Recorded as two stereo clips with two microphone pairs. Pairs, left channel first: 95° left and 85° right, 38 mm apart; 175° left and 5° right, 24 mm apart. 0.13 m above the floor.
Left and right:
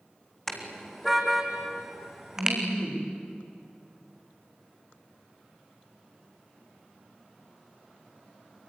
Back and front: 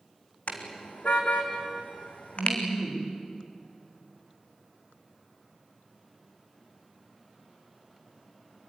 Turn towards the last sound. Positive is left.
turn(degrees=-130)